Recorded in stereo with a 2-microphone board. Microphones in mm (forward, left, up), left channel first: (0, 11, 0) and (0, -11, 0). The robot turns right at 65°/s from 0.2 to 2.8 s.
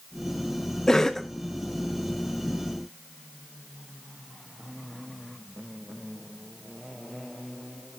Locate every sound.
0.9 s a cough: 20° left (ahead or behind), 0.6 m; by 1.3 s 10° left (ahead or behind), 0.6 m